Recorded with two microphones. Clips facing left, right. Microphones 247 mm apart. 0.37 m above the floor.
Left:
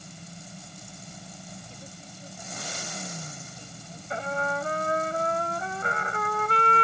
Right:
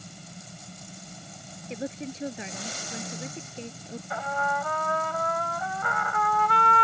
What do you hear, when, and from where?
1.7 s a woman speaking: 75° right (ahead or behind)
4.1 s a trumpet: 30° left (ahead or behind)